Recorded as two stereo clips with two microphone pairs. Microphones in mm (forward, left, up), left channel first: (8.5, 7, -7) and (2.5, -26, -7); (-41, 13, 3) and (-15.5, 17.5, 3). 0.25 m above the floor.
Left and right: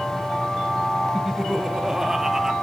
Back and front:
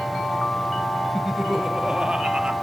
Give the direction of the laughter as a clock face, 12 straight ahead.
1 o'clock.